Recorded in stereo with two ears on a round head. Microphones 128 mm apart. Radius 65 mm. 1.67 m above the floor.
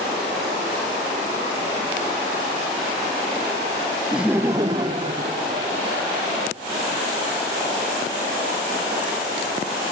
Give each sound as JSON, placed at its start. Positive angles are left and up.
{"t": 4.1, "sound": "laughter", "side_deg": -5, "distance_m": 0.6}